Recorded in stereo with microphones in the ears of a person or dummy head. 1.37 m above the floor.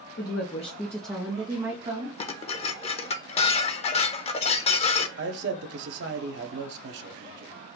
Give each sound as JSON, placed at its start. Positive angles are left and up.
{"t": 0.2, "sound": "a woman speaking", "side_deg": 55, "distance_m": 0.8}
{"t": 2.2, "sound": "dishes clattering", "side_deg": 35, "distance_m": 0.6}
{"t": 5.2, "sound": "a man speaking", "side_deg": -65, "distance_m": 0.8}